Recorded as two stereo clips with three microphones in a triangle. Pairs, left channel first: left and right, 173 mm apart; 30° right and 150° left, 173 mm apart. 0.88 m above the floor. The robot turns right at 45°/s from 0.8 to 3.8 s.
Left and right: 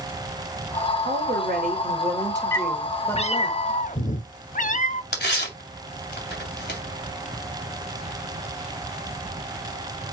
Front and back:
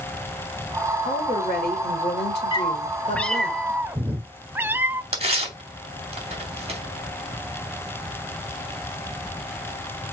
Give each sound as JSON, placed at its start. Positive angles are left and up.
{"t": 1.1, "sound": "a woman speaking", "azimuth_deg": -80, "distance_m": 3.5}
{"t": 2.5, "sound": "a cat meowing", "azimuth_deg": 20, "distance_m": 0.7}
{"t": 5.1, "sound": "tearing paper", "azimuth_deg": 100, "distance_m": 3.0}